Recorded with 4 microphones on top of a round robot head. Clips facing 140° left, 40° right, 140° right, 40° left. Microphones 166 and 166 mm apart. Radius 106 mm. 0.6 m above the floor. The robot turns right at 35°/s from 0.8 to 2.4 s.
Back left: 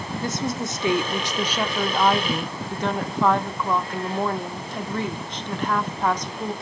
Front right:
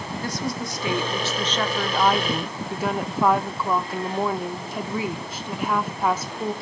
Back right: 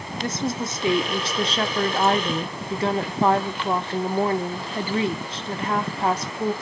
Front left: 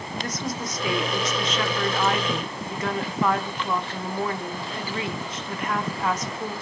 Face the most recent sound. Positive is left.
turn(degrees=-120)